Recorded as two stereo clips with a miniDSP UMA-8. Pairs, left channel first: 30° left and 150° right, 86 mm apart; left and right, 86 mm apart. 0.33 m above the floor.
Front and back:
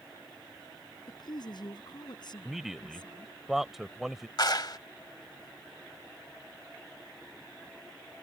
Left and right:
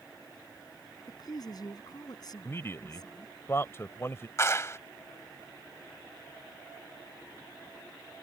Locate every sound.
1.1 s a woman speaking: 55° left
2.5 s a man speaking: 125° left
4.4 s a clap: 40° left